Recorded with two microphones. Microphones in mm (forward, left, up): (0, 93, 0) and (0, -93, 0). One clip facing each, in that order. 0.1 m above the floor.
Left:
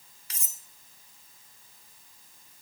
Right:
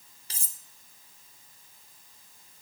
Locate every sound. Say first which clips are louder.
0.3 s cutlery clinking: even; 30° right (ahead or behind), 0.8 m